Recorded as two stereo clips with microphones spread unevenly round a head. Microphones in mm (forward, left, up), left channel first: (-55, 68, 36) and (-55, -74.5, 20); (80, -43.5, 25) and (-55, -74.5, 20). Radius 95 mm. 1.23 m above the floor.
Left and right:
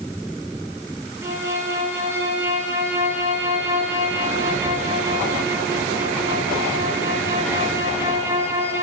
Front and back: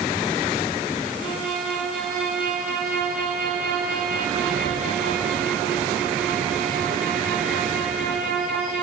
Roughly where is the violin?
Behind.